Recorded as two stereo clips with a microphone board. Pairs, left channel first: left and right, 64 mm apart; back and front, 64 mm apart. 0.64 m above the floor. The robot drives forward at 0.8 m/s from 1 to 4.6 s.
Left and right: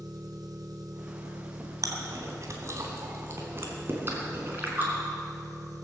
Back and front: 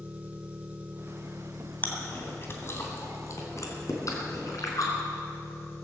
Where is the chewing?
115° right, 2 m; by 4.9 s 150° right, 4 m.